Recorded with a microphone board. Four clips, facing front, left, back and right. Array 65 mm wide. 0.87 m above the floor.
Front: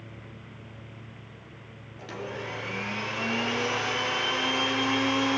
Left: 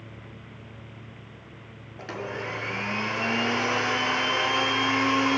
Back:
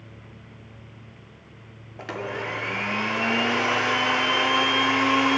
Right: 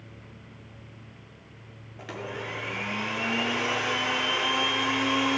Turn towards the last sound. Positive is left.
turn(degrees=165)